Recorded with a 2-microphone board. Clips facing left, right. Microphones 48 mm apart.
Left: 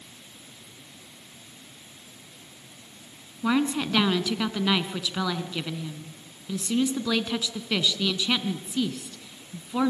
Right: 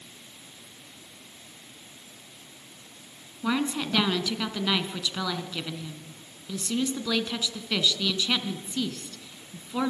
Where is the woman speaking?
10° left (ahead or behind), 2 m.